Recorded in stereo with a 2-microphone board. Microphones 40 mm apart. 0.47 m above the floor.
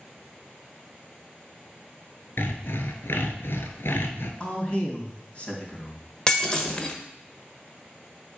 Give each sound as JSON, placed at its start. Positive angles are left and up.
{"t": 2.4, "sound": "sawing", "side_deg": 75, "distance_m": 1.2}
{"t": 4.4, "sound": "a man speaking", "side_deg": 25, "distance_m": 3.0}
{"t": 6.3, "sound": "breaking glass", "side_deg": 20, "distance_m": 1.1}